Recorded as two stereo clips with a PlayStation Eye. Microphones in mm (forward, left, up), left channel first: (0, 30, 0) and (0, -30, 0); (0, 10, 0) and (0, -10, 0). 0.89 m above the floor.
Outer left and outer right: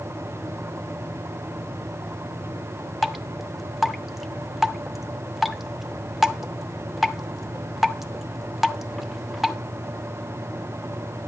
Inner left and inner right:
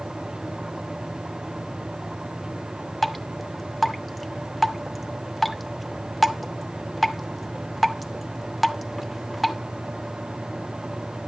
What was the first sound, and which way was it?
Dripping, 5° right (ahead or behind).